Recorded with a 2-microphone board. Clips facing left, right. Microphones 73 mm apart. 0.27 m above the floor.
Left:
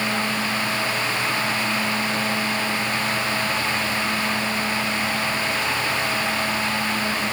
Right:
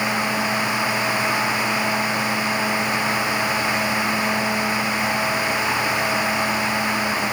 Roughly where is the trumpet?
No trumpet in this recording.